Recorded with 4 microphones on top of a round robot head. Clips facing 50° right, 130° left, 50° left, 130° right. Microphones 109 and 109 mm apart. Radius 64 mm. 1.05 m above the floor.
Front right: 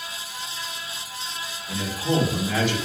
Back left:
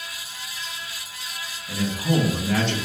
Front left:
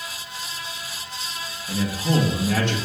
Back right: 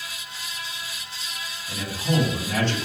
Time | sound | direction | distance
1.7 | a man speaking | 30° left | 1.3 m